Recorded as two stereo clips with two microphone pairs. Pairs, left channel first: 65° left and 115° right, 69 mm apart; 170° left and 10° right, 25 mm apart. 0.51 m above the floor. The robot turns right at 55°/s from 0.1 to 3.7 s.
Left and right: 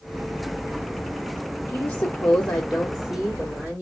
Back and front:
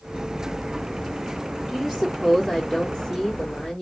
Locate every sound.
1.7 s a woman speaking: 95° left, 0.9 m; by 3.8 s 155° right, 0.9 m